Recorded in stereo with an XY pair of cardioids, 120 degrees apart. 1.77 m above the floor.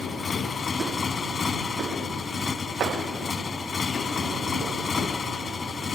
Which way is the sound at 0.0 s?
35° left.